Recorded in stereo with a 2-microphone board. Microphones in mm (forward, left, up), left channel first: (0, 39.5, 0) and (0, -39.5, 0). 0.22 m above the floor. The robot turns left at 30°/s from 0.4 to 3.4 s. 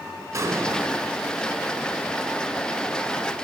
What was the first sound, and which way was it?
An explosion, 35° right (ahead or behind).